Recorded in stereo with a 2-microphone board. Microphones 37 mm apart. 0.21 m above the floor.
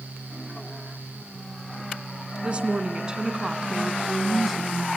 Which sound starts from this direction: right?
A woman speaking, at 2.4 s.